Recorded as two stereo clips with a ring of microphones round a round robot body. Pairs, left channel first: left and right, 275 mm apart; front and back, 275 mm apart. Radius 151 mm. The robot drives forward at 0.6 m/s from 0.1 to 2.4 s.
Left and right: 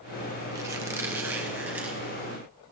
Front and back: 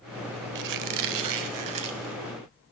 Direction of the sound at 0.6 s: 170° right.